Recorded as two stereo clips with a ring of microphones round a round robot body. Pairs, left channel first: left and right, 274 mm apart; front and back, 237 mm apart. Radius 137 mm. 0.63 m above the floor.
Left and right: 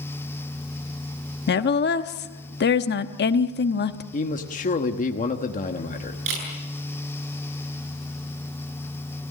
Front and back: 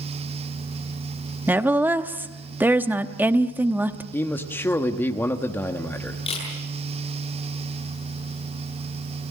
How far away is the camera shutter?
About 8.5 m.